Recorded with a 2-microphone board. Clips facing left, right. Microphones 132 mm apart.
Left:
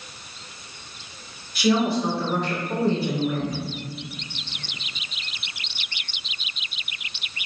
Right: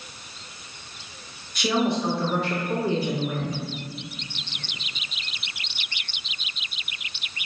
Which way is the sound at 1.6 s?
5° left (ahead or behind).